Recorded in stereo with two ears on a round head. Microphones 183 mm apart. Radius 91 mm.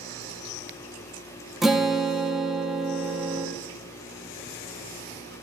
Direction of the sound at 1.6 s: Centre (ahead or behind).